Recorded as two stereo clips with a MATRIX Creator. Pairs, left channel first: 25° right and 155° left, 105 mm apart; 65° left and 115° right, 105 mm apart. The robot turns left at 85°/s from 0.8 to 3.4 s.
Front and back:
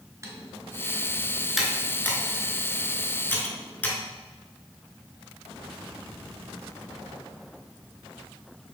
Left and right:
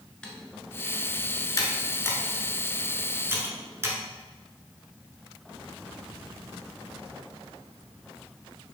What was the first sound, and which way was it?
Typing on a keyboard, 140° left.